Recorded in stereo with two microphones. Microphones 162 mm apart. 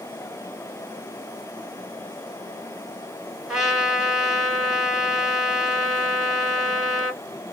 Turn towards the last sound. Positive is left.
turn(degrees=-5)  # may be behind; listen again after turning